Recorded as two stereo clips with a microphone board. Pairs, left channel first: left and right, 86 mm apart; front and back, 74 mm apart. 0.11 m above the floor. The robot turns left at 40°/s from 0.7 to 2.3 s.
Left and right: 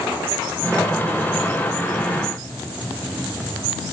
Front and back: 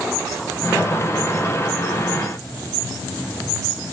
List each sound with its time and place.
Only background noise.